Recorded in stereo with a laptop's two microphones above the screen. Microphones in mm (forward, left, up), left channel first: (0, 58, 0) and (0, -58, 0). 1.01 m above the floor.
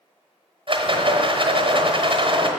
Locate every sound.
0.7 s a rattle: 50° right (ahead or behind), 1.0 m